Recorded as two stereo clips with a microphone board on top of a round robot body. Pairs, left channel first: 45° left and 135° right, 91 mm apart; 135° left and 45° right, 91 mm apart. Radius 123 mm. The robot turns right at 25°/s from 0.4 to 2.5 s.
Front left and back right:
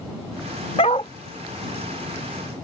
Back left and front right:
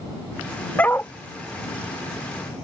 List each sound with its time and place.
0.8 s a dog barking: 65° left; by 1.1 s 70° left